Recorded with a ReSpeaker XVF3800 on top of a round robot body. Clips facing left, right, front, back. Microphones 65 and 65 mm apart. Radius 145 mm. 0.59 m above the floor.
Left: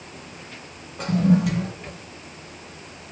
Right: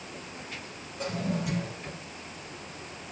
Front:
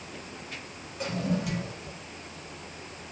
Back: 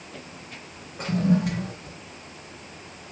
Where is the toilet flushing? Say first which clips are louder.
Left 12 dB, back 7 dB; 130° left, 1.6 m.